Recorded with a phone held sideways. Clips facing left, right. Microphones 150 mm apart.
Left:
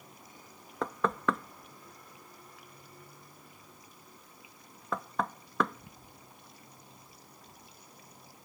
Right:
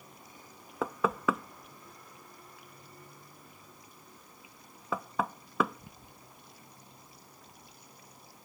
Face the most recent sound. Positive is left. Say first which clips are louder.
# right 1 dB
turn(degrees=-5)  # may be behind; listen again after turning